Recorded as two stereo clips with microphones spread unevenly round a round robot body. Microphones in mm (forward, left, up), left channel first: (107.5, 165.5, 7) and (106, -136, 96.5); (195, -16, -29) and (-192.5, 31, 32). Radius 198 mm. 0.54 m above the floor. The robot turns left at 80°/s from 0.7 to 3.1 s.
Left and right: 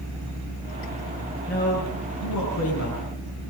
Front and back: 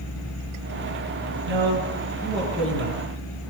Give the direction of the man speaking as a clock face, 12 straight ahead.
7 o'clock.